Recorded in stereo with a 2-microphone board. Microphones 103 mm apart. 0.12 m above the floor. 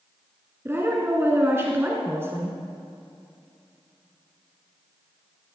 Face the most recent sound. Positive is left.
turn(degrees=-25)  # may be behind; listen again after turning